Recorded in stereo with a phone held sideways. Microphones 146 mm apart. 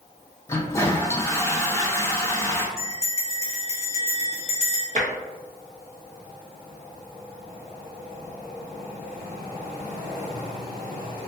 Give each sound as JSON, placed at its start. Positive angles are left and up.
{"t": 0.5, "sound": "a toilet flushing", "side_deg": 20, "distance_m": 0.5}
{"t": 2.8, "sound": "a bell", "side_deg": 45, "distance_m": 1.3}
{"t": 5.0, "sound": "tapping", "side_deg": -55, "distance_m": 0.6}